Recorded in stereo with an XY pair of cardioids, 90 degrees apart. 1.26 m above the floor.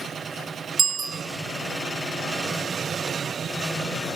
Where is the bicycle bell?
50° right, 3 m.